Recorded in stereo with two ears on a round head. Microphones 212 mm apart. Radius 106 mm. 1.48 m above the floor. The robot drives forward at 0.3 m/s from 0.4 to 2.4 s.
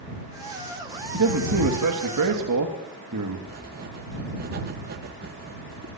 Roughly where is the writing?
Right.